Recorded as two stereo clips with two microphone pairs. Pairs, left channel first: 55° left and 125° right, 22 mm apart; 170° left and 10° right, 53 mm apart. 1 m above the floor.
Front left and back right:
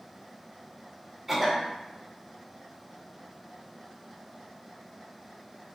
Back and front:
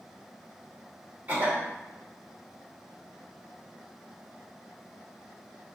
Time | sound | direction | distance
1.3 | a cough | 50° right | 1.1 m